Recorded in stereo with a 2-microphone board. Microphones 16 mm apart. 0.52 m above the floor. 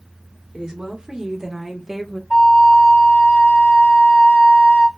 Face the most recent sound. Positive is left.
turn(degrees=55)  # may be behind; listen again after turning